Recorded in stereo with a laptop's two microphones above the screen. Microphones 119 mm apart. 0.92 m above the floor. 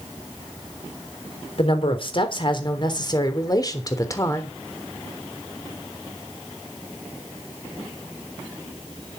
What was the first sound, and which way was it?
A woman speaking, 50° left (ahead or behind).